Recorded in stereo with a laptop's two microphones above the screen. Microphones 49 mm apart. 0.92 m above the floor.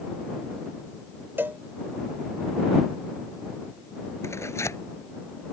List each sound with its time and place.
1.4 s a cowbell: 50° right (ahead or behind)
4.2 s tearing paper: 75° left (ahead or behind)